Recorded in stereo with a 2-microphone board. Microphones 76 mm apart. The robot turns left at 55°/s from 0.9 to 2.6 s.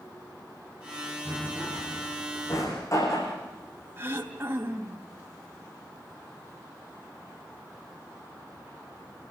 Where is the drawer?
25° right (ahead or behind), 9 m; by 3.4 s 45° left (ahead or behind), 9 m.